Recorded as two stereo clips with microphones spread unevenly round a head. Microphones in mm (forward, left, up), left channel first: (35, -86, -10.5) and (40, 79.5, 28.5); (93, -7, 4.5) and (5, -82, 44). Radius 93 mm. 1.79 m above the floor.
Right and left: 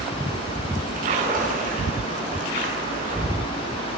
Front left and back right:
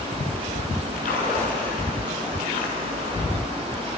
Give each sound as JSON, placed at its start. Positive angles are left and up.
{"t": 1.0, "sound": "a splash", "azimuth_deg": 55, "distance_m": 7.5}